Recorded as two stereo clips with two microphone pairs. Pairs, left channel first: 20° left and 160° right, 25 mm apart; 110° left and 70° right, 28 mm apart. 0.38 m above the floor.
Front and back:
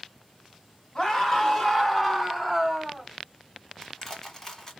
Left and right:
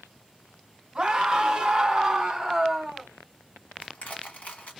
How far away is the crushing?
About 1.4 m.